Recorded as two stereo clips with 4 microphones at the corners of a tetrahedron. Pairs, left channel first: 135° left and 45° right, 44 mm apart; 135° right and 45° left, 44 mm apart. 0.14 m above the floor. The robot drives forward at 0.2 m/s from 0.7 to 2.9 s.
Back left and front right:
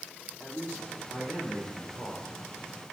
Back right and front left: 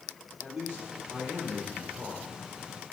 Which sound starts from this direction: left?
A man speaking, at 0.4 s.